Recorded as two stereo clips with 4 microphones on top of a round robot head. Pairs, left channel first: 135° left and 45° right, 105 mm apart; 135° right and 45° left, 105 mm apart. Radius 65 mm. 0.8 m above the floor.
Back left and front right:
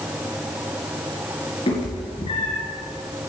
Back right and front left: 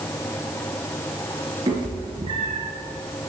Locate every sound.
1.7 s a cat meowing: 95° left, 3.5 m